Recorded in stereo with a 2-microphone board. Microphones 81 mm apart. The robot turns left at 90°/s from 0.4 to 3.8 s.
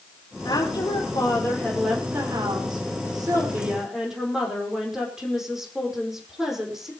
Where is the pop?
I don't hear a pop.